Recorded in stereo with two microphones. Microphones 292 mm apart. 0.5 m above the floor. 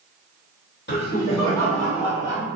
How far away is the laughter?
About 1.5 m.